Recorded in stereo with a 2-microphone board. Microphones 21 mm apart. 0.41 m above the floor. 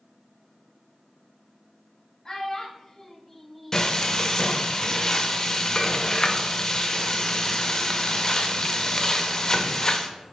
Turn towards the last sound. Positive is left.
turn(degrees=30)  # may be behind; listen again after turning